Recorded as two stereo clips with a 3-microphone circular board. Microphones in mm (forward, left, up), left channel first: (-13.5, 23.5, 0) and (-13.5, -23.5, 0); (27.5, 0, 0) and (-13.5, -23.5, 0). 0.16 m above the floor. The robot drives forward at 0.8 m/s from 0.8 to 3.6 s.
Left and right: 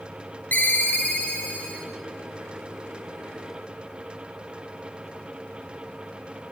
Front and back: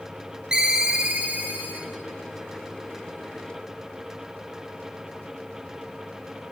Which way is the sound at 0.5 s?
135° left.